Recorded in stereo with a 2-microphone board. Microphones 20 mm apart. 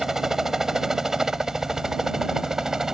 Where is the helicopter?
20° right (ahead or behind).